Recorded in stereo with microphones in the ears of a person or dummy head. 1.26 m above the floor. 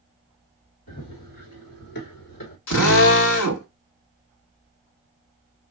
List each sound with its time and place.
0.9 s running footsteps: 50° left (ahead or behind), 2.5 m
2.7 s a drill: 75° left (ahead or behind), 1.8 m